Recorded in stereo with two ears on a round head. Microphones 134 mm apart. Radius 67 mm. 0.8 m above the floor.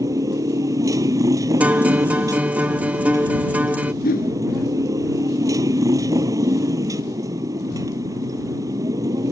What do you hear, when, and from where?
0.0 s a motorcycle: 20° right (ahead or behind)
1.6 s a guitar: 10° right (ahead or behind)
4.0 s a whoosh: 60° left (ahead or behind)